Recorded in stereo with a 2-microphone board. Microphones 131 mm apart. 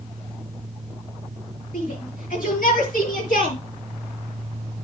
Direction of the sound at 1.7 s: 80° left.